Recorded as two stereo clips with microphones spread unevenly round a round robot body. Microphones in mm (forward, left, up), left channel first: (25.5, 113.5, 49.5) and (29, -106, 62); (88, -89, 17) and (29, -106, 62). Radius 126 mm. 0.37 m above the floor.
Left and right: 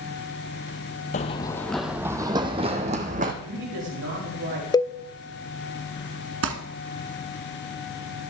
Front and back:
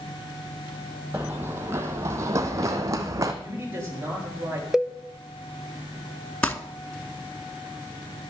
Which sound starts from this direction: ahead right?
Crumpling, at 6.4 s.